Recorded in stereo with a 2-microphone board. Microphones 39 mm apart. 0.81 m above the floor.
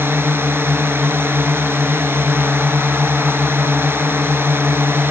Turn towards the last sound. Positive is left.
turn(degrees=-85)